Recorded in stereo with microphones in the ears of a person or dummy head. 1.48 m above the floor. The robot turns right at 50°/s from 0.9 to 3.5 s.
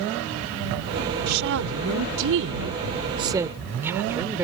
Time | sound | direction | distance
1.3 | a woman speaking | 125° right | ?